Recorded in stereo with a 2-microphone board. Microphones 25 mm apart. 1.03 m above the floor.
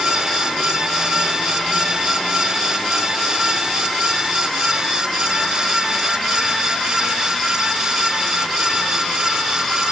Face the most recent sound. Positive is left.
No sound to turn to.